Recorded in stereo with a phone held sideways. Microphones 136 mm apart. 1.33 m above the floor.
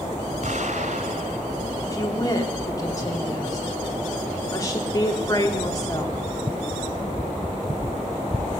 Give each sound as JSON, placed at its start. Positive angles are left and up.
{"t": 0.4, "sound": "an explosion", "side_deg": -65, "distance_m": 4.0}
{"t": 1.8, "sound": "a woman speaking", "side_deg": 25, "distance_m": 4.0}